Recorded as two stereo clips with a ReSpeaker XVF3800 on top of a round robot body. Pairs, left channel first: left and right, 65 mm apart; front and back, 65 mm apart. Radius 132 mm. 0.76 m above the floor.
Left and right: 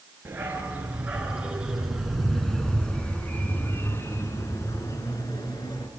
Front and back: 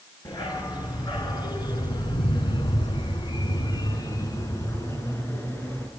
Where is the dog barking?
25° right, 4.5 m; by 5.9 s 70° left, 4 m.